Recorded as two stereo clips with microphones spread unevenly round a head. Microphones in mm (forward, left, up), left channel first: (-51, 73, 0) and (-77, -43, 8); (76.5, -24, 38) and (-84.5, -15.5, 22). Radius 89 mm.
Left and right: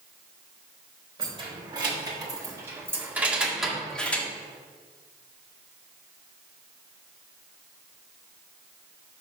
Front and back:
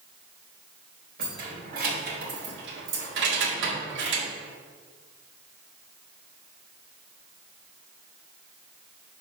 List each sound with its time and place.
1.2 s keys jangling: 150° right, 2.5 m; by 4.3 s 155° left, 1.4 m